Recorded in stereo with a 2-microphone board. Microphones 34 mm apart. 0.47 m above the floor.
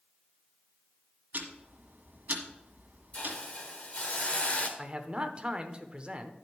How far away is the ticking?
About 1.5 m.